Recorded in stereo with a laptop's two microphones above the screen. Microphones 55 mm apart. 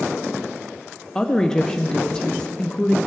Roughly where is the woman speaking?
Centre.